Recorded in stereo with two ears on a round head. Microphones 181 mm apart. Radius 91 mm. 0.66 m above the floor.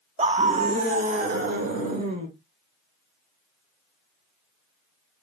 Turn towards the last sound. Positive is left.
turn(degrees=-40)  # may be behind; listen again after turning